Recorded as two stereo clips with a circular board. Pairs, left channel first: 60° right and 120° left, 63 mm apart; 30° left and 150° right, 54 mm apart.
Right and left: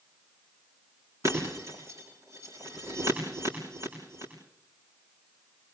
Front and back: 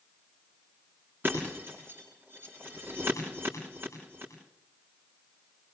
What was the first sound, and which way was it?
Breaking glass, 160° left.